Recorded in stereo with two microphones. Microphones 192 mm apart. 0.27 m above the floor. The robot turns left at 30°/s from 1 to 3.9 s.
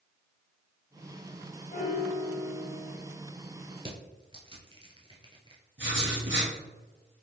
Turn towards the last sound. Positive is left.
turn(degrees=-75)  # may be behind; listen again after turning